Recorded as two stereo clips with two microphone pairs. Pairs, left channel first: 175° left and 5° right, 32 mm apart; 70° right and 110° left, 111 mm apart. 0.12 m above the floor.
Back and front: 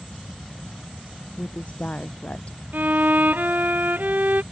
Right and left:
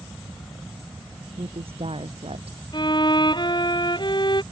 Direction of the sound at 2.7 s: 25° right.